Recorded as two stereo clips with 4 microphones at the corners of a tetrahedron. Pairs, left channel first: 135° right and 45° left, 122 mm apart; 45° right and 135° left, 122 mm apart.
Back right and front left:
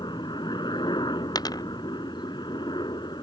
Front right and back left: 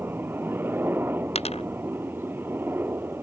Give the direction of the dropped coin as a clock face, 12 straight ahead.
3 o'clock.